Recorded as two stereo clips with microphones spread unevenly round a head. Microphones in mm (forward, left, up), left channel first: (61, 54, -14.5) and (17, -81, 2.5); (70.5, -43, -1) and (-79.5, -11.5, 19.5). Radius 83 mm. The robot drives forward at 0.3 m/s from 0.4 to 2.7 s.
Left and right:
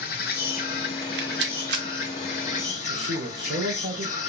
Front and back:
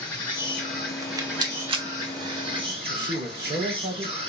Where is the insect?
75° left, 1.0 m; by 4.3 s 115° left, 1.1 m.